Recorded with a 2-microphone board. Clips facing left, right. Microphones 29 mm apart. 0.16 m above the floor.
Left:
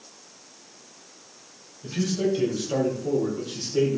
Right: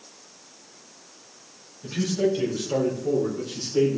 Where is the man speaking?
10° right (ahead or behind), 4.5 m; by 4.0 s 20° left (ahead or behind), 5.5 m.